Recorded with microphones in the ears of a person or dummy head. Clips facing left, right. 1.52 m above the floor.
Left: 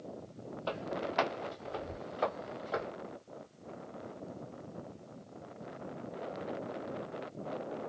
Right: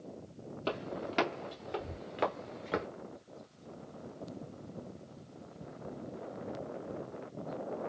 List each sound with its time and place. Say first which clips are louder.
0.7 s footsteps: even; 50° right (ahead or behind), 2.5 m; by 2.9 s 35° right (ahead or behind), 1.8 m